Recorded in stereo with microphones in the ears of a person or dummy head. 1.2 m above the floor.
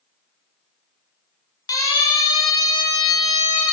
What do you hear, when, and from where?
1.7 s a siren: 25° left (ahead or behind), 6 m; by 3.7 s 35° left (ahead or behind), 6.5 m